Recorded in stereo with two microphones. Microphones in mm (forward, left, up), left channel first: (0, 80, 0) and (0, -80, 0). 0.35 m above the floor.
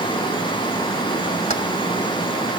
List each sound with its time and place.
1.5 s keys jangling: 45° left (ahead or behind), 1.4 m